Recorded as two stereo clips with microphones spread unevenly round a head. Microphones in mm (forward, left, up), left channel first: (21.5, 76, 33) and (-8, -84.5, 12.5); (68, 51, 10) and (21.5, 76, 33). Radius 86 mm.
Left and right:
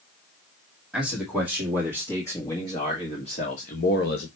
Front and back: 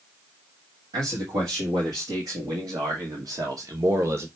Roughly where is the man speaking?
Behind.